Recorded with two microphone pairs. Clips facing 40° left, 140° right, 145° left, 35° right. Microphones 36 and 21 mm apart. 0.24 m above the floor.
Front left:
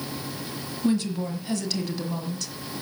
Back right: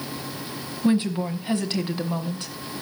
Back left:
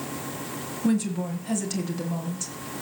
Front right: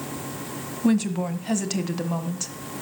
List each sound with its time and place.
0.8 s a woman speaking: 85° right, 1.5 m